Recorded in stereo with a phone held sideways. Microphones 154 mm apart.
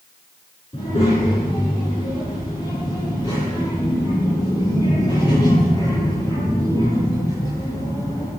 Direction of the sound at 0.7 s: 40° left (ahead or behind).